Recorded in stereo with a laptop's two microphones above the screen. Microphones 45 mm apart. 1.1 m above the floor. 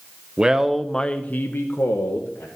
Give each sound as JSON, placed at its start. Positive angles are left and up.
{"t": 0.4, "sound": "a man speaking", "side_deg": -20, "distance_m": 0.8}